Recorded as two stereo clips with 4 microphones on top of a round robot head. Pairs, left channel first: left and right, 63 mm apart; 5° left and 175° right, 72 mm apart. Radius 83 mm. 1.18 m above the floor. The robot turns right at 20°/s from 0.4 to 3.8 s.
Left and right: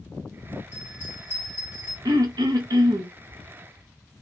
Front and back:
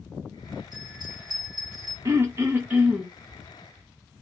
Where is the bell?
155° right, 1.8 m; by 1.9 s 130° right, 1.8 m.